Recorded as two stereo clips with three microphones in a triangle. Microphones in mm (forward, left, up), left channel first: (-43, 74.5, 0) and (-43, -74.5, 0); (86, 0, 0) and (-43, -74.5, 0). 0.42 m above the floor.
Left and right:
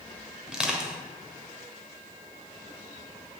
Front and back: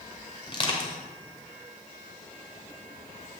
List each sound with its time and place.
0.5 s crushing: 5° right, 1.7 m